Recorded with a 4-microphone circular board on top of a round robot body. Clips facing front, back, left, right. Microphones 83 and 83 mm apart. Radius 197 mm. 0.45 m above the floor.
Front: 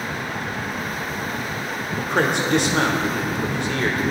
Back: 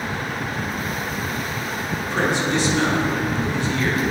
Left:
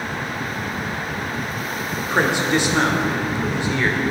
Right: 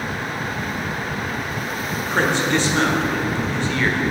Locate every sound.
2.0 s a man speaking: 15° left, 2 m